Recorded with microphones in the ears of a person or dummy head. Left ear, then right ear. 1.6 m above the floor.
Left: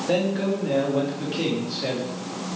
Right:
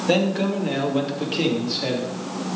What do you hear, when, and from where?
0.1 s a man speaking: 30° right (ahead or behind), 2.5 m; by 2.1 s 15° right (ahead or behind), 3 m